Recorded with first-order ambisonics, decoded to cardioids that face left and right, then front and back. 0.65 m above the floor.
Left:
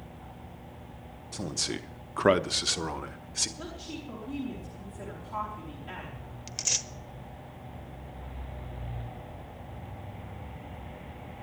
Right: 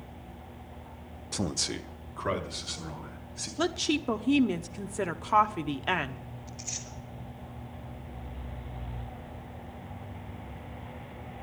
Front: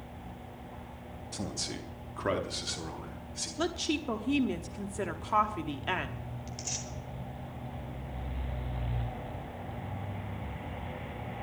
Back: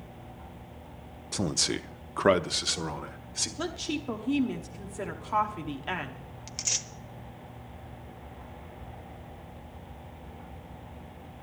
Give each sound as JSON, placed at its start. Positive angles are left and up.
{"t": 1.3, "sound": "a man speaking", "azimuth_deg": -140, "distance_m": 0.6}
{"t": 3.6, "sound": "a woman speaking", "azimuth_deg": -85, "distance_m": 0.9}
{"t": 6.5, "sound": "tearing paper", "azimuth_deg": 120, "distance_m": 1.0}